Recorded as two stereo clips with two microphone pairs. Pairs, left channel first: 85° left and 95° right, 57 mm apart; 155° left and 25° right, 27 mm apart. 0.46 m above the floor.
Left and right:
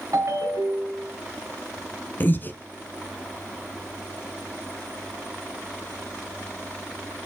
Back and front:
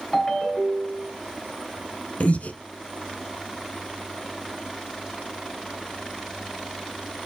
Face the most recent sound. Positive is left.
turn(degrees=135)